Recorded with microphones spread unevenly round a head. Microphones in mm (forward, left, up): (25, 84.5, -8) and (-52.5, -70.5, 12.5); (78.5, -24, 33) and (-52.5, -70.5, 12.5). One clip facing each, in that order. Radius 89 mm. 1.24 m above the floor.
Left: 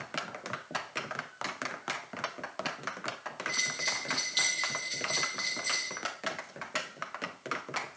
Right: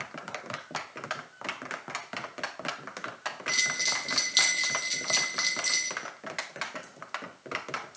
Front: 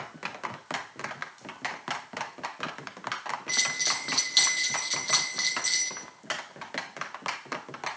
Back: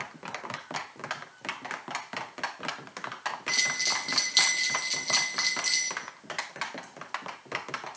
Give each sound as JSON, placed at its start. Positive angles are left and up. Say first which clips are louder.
{"t": 3.5, "sound": "a bell", "louder": "right 2 dB, even", "azimuth_deg": -80, "distance_m": 2.5}